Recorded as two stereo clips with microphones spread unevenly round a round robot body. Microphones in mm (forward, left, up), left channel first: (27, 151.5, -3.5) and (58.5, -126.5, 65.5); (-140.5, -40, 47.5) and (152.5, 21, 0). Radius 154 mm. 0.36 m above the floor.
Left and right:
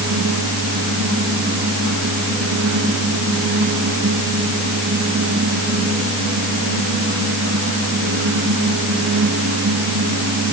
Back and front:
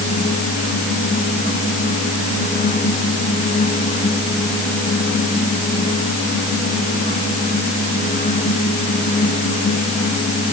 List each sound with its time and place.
Only background noise.